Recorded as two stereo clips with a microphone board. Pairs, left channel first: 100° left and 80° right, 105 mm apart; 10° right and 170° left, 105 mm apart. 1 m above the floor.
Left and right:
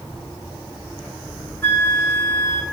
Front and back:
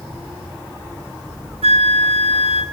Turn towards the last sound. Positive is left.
turn(degrees=165)